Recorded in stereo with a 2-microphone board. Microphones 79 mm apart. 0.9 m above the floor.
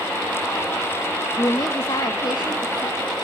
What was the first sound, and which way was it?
A woman speaking, 40° left (ahead or behind).